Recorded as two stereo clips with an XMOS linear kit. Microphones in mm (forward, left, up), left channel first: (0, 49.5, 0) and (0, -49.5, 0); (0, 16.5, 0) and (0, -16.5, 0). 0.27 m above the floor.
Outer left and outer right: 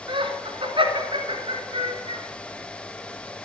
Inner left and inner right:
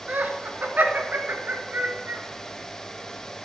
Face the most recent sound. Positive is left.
turn(degrees=-65)  # may be behind; listen again after turning